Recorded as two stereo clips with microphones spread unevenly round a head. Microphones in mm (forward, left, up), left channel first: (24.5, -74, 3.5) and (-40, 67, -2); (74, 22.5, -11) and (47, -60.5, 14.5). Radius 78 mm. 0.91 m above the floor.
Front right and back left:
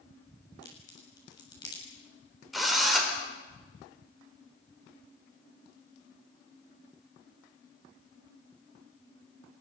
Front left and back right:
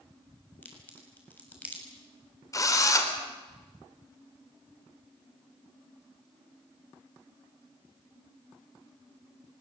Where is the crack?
Straight ahead, 7 m.